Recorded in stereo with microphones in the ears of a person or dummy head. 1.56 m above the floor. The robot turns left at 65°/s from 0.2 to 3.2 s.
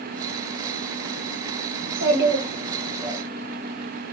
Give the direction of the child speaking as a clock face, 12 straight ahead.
3 o'clock.